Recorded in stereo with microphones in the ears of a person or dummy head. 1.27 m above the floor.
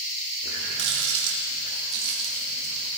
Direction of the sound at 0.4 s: 65° right (ahead or behind).